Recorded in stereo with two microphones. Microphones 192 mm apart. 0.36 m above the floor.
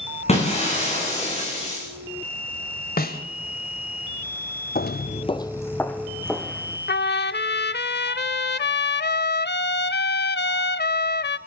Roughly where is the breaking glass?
Left.